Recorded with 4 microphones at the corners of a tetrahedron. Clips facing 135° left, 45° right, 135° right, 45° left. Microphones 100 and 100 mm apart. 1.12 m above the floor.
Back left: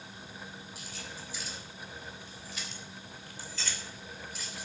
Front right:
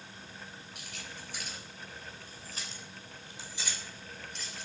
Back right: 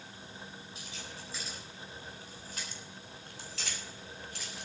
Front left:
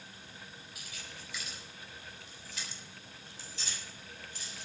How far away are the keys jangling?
About 5 m.